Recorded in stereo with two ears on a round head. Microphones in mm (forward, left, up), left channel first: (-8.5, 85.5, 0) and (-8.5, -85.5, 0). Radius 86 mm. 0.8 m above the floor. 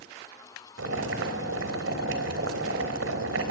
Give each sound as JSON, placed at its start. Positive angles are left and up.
{"t": 0.8, "sound": "boiling", "side_deg": -85, "distance_m": 3.5}